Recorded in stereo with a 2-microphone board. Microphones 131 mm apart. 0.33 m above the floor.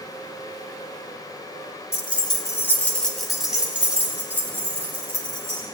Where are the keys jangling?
45° left (ahead or behind), 1.1 m; by 5.6 s 20° right (ahead or behind), 4 m.